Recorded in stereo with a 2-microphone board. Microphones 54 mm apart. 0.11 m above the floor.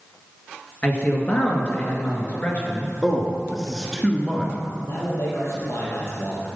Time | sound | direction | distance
0.8 | a man speaking | 30° left (ahead or behind) | 1.8 m
3.0 | a man speaking | 5° left (ahead or behind) | 1.2 m
4.9 | a man speaking | 60° left (ahead or behind) | 2.5 m